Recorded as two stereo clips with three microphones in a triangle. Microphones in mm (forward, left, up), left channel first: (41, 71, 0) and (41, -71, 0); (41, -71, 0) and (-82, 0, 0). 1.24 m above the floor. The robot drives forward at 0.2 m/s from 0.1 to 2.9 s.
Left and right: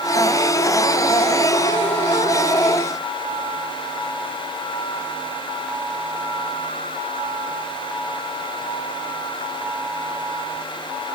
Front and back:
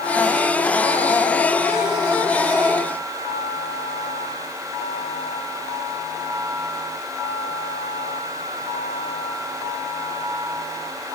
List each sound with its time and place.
Only background noise.